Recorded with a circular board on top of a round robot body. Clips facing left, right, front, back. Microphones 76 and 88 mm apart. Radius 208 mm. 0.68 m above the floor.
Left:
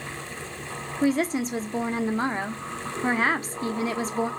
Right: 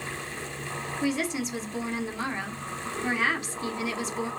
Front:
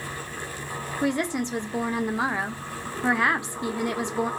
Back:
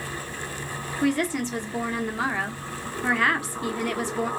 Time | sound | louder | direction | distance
1.0 | a woman speaking | left 6 dB, back 2 dB | 65° left | 1.1 m